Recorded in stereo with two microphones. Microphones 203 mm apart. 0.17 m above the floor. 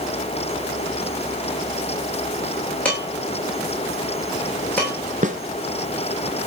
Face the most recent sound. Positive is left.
turn(degrees=-40)  # may be behind; listen again after turning